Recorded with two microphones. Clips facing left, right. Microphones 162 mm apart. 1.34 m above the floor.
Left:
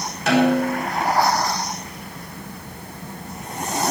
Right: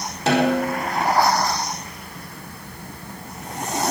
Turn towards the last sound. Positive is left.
turn(degrees=-30)  # may be behind; listen again after turning